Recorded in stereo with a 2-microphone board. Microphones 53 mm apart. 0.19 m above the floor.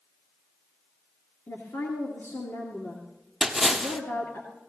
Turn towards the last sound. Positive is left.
turn(degrees=0)  # may be behind; listen again after turning